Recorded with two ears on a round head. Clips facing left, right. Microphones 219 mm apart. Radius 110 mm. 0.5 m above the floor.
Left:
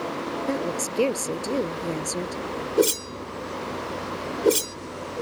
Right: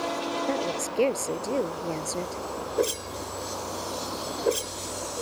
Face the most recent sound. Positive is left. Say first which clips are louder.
# left 6 dB
turn(degrees=55)  # may be behind; listen again after turning